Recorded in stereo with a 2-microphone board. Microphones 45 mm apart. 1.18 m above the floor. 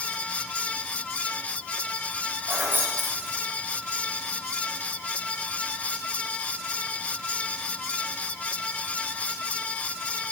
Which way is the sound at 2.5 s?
55° right (ahead or behind).